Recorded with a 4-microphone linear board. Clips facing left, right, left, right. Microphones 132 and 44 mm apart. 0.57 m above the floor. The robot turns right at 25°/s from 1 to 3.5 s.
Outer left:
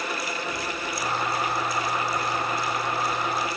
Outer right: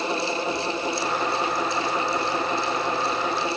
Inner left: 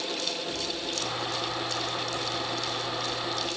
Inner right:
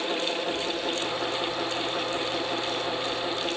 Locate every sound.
Only background noise.